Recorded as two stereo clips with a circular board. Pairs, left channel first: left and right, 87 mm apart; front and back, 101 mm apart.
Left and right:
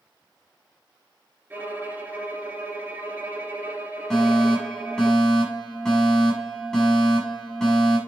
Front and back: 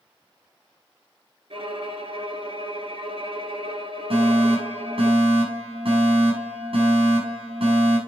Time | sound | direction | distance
1.5 | a violin | 160° right | 3 m
4.1 | a fire alarm | 175° left | 7 m